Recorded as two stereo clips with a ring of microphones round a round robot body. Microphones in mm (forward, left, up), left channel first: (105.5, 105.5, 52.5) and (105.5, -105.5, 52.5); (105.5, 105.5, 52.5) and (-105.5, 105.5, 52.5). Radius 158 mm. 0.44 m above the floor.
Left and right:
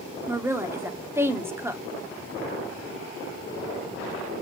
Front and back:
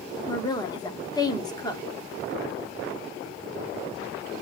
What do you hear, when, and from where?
0.3 s a woman speaking: 30° right, 1.3 m